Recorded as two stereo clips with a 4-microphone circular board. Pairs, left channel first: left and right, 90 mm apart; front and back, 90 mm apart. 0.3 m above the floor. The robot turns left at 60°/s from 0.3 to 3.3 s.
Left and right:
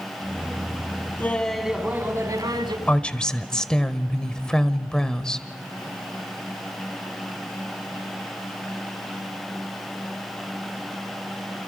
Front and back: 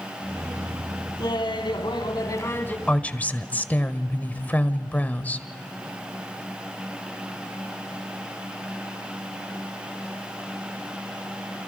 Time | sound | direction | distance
1.2 | laughter | 25° left | 1.9 m
2.9 | a woman speaking | 50° left | 1.2 m